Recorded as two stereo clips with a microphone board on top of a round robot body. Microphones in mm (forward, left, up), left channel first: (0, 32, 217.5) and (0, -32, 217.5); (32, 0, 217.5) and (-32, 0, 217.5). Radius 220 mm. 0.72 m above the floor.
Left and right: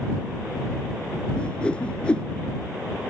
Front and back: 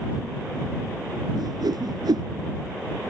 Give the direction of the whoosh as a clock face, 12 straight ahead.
6 o'clock.